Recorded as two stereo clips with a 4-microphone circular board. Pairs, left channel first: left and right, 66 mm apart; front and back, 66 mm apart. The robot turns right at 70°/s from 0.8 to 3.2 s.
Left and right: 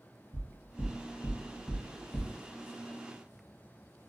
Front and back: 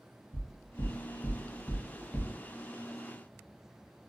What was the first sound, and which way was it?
Knocking, 35° left.